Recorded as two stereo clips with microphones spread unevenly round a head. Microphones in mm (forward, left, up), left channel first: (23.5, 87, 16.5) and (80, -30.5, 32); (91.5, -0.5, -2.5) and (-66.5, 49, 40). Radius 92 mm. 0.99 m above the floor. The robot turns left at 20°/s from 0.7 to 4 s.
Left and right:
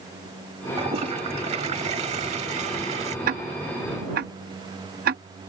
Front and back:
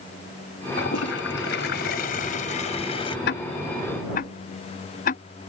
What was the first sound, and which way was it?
A toilet flushing, 40° right.